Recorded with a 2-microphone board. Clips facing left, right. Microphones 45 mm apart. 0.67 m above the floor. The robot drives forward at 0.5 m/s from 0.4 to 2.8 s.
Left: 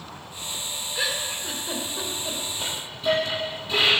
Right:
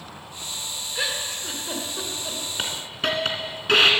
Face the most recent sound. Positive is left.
turn(degrees=-75)  # may be behind; listen again after turning